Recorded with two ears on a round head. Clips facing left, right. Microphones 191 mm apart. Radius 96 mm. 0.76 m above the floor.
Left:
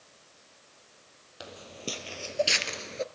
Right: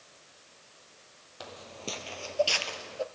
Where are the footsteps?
10° left (ahead or behind), 1.5 m; by 3.0 s 30° left (ahead or behind), 0.8 m.